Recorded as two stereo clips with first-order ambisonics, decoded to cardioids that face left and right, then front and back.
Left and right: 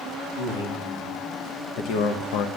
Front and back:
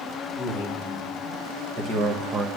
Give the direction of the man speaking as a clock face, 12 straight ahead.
8 o'clock.